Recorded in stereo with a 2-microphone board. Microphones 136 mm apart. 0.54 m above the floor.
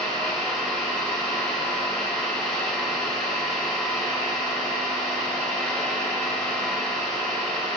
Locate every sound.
0.0 s an engine running: 5° left (ahead or behind), 1.4 m